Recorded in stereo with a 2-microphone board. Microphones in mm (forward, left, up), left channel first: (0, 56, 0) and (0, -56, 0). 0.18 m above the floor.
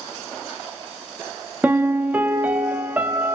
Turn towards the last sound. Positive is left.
turn(degrees=-15)  # may be behind; listen again after turning